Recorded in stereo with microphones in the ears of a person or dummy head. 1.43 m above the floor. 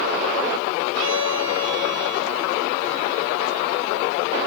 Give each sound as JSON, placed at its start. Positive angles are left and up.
{"t": 0.9, "sound": "a violin", "side_deg": -65, "distance_m": 1.9}